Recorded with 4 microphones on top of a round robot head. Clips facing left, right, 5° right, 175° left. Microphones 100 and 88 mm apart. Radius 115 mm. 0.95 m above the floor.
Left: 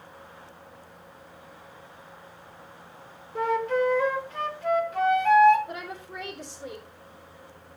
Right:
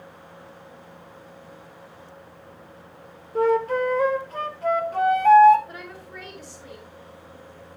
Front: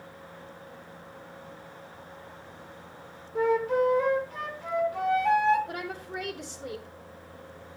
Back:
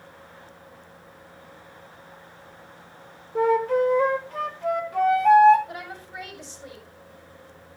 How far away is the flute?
About 0.7 m.